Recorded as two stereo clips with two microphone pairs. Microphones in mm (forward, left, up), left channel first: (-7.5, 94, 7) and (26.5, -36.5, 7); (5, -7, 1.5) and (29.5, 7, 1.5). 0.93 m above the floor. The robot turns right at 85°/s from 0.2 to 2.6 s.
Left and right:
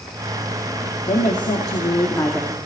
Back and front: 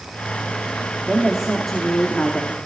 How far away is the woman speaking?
About 2.5 m.